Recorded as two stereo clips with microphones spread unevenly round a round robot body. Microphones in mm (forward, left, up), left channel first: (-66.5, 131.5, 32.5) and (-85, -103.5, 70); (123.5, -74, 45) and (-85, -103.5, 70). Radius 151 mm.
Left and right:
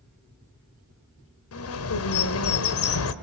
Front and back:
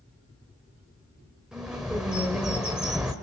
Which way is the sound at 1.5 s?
100° left.